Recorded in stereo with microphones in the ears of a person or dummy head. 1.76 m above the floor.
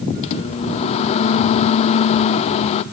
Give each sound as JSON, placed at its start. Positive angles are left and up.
{"t": 0.2, "sound": "a microwave", "side_deg": 40, "distance_m": 0.5}